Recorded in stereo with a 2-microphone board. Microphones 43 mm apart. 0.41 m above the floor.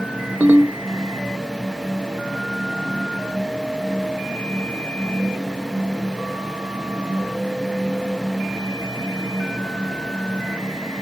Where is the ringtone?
55° right (ahead or behind), 0.9 m.